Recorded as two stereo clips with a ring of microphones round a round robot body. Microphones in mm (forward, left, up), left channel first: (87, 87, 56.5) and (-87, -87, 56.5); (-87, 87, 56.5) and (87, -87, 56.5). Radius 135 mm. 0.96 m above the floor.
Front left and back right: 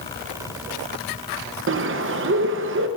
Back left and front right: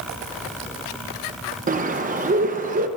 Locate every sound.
1.7 s a bird: 100° right, 0.8 m